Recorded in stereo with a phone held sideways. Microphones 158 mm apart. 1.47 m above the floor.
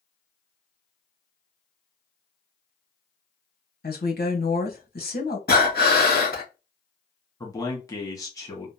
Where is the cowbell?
I don't hear a cowbell.